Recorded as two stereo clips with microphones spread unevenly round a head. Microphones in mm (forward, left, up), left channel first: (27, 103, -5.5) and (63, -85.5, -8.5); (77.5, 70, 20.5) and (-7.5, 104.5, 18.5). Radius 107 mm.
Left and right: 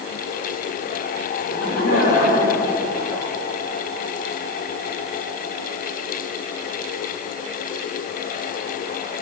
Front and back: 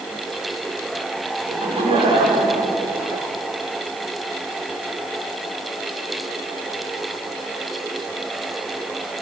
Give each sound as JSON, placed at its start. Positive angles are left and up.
{"t": 1.5, "sound": "laughter", "azimuth_deg": 150, "distance_m": 7.0}